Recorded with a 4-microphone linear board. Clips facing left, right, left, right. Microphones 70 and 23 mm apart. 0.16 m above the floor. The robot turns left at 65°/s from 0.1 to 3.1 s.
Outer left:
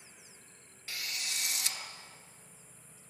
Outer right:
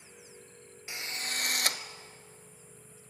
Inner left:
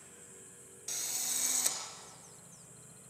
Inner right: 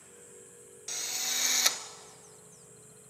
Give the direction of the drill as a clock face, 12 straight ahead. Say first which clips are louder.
Outer right 3 dB, inner right 4 dB; 1 o'clock.